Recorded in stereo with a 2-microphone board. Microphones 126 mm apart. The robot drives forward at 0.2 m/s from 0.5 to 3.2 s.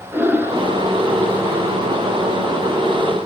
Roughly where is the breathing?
Centre.